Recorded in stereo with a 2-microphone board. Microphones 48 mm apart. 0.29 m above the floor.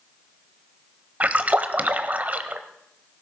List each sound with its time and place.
1.2 s a splash: 30° right (ahead or behind), 0.8 m